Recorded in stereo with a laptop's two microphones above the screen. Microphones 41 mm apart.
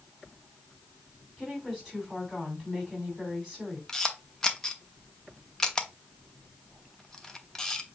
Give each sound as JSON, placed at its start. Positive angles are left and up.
{"t": 1.4, "sound": "a woman speaking", "side_deg": -5, "distance_m": 3.0}
{"t": 3.9, "sound": "a camera shutter", "side_deg": 15, "distance_m": 0.8}